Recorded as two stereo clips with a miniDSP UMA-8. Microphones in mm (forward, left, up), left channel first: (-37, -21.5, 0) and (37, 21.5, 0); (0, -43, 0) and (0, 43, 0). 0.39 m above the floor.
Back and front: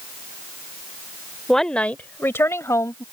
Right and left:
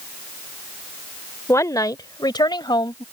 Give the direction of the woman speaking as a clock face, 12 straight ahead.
2 o'clock.